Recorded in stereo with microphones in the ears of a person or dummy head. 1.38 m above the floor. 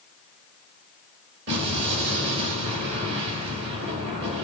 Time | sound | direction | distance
1.5 | an explosion | 55° right (ahead or behind) | 4.5 m